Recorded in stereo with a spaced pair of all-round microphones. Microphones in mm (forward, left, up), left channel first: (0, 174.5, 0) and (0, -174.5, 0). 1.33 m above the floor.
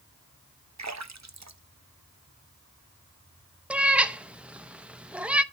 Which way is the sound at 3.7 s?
5° right (ahead or behind).